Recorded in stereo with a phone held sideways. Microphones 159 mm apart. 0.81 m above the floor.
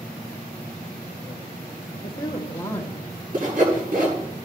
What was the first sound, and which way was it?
A woman speaking, 30° left (ahead or behind).